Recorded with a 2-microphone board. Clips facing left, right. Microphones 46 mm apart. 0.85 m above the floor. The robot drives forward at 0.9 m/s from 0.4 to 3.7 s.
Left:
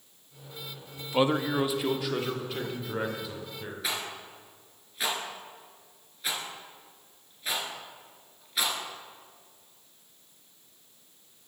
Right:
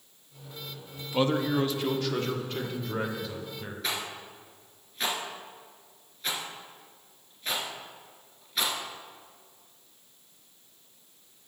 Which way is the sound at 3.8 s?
5° left (ahead or behind).